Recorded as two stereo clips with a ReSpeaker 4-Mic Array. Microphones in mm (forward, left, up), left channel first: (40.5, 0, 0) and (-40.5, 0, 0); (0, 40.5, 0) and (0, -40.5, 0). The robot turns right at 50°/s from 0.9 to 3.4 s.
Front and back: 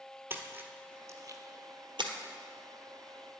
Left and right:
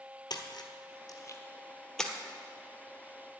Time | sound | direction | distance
0.3 | a splash | 120° left | 1.1 m